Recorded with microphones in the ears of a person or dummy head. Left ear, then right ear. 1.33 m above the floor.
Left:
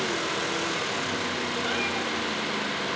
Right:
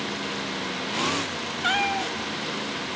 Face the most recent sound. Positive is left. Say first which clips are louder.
# right 8 dB
turn(degrees=-55)  # may be behind; listen again after turning